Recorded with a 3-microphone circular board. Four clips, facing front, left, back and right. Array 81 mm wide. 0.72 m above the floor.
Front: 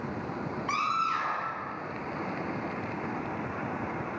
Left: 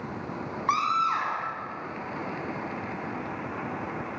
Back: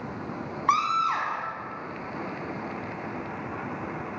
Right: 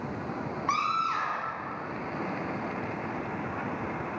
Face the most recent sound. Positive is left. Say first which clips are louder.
# left 3 dB, back 6 dB
turn(degrees=165)